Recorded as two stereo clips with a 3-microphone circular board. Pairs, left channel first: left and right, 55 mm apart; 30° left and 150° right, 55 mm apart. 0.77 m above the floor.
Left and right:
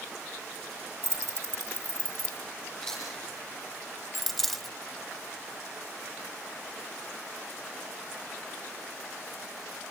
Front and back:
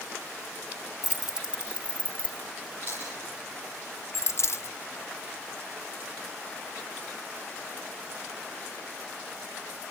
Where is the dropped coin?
5° left, 1.2 m.